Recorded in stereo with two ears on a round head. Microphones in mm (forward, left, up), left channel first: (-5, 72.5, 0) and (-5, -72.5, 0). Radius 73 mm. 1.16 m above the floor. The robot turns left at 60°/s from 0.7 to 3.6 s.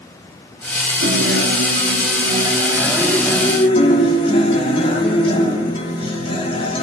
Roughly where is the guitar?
Ahead right.